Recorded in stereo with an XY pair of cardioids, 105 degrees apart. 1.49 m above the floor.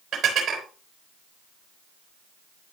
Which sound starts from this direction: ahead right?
Dishes clattering, at 0.1 s.